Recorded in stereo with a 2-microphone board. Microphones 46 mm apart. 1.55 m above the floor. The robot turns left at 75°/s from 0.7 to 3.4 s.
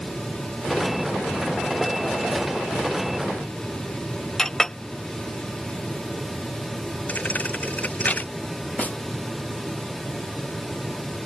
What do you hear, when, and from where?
4.4 s a clink: 10° left (ahead or behind)
7.1 s a thud: 35° left (ahead or behind)
8.8 s a snare drum: 35° left (ahead or behind)